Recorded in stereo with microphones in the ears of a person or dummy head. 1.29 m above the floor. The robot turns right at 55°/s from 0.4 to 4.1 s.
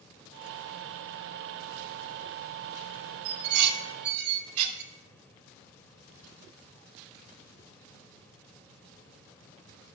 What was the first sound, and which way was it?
Dishes clattering, 80° right.